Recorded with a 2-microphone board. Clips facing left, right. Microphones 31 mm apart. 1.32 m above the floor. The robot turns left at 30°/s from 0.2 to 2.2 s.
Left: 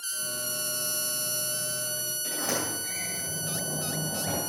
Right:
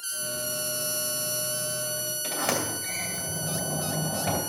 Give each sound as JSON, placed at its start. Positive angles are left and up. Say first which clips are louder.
{"t": 2.2, "sound": "a sliding door", "louder": "right 3 dB", "side_deg": -70, "distance_m": 3.0}